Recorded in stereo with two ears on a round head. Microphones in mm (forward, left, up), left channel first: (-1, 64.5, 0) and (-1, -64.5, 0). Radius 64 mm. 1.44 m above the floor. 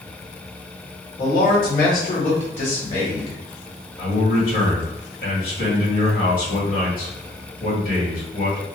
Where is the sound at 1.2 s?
75° left (ahead or behind), 1.9 m; by 3.4 s 40° left (ahead or behind), 2 m.